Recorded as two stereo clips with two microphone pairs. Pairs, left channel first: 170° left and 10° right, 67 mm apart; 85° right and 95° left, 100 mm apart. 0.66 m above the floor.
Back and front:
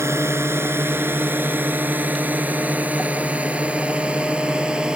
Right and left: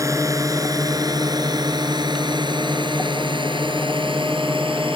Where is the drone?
40° left; by 5.0 s 65° left.